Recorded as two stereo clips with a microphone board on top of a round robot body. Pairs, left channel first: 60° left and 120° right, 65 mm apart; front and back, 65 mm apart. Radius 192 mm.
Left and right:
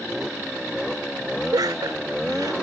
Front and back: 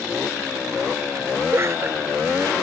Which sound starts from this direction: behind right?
Laughter, at 1.5 s.